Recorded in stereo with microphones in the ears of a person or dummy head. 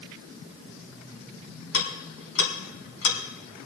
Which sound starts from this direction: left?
Ticking, at 1.7 s.